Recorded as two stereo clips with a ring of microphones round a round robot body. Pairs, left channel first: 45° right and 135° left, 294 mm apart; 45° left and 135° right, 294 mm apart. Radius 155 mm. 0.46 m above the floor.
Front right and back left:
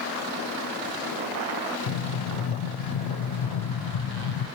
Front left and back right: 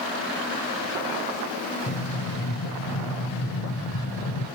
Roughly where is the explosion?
Ahead.